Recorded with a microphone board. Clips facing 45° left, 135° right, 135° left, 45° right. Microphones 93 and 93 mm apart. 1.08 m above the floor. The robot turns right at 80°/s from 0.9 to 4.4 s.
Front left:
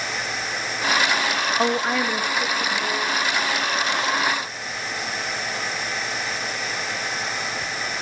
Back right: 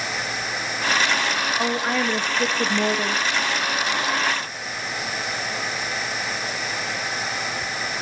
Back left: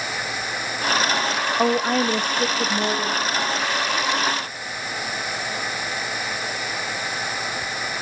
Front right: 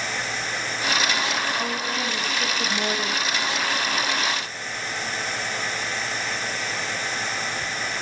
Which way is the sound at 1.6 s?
105° left.